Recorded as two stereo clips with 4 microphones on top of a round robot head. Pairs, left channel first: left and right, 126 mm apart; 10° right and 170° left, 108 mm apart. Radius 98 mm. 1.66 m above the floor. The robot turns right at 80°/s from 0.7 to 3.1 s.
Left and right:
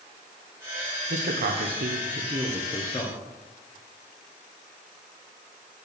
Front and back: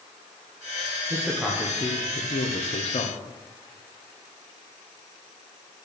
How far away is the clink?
I don't hear a clink.